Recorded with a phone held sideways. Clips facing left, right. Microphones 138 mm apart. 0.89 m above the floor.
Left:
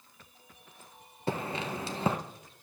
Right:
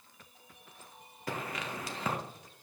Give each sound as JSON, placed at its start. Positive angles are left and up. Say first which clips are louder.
{"t": 1.3, "sound": "footsteps", "louder": "left 5 dB", "side_deg": 30, "distance_m": 1.0}